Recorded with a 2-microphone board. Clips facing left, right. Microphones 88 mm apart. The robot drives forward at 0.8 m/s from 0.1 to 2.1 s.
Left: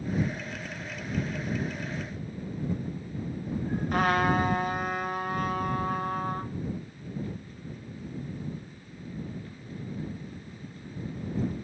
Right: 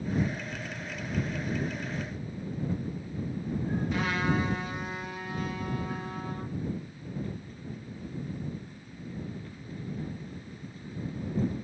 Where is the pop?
I don't hear a pop.